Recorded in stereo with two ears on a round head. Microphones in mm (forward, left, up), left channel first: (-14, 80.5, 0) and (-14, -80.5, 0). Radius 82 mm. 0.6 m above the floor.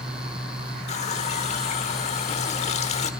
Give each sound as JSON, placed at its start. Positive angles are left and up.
{"t": 0.9, "sound": "a running tap", "side_deg": 40, "distance_m": 1.1}